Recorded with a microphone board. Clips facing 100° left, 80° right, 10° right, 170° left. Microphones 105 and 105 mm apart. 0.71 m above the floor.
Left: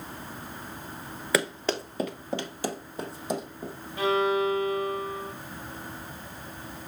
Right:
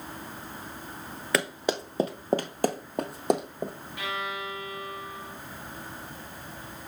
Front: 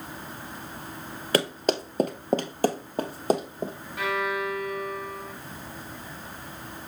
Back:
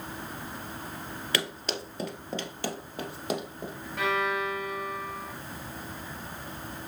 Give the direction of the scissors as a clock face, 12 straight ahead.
I don't hear scissors.